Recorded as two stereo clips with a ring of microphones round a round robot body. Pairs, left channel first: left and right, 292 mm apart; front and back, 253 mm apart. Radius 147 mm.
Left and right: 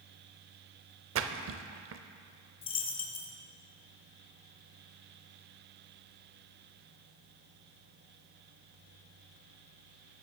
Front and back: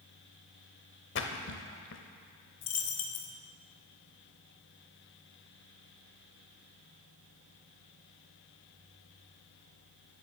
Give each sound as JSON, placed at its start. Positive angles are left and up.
{"t": 1.1, "sound": "a splash", "azimuth_deg": -45, "distance_m": 0.6}
{"t": 2.6, "sound": "a dropped coin", "azimuth_deg": 20, "distance_m": 1.1}